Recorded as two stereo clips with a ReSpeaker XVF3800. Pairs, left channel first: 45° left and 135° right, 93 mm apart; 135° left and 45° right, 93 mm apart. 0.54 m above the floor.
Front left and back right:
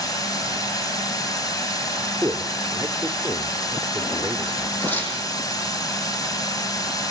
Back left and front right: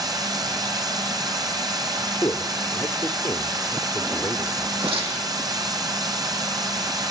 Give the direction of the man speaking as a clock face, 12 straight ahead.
6 o'clock.